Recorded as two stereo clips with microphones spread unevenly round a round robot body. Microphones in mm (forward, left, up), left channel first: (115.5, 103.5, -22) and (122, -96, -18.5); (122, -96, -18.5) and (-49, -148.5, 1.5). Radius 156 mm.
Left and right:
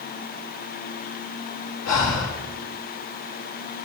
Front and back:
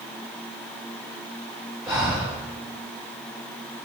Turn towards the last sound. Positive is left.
turn(degrees=110)